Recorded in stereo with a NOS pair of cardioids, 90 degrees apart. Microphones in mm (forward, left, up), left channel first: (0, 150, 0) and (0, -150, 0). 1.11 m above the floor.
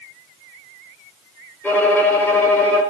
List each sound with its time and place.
1.6 s a violin: 5° left, 4.5 m